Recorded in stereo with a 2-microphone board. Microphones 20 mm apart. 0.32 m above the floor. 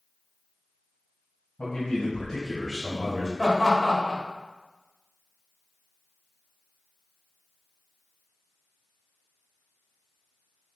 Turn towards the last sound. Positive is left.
turn(degrees=0)  # may be behind; listen again after turning